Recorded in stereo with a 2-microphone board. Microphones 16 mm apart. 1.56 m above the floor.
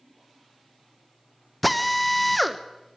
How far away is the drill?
About 1.1 m.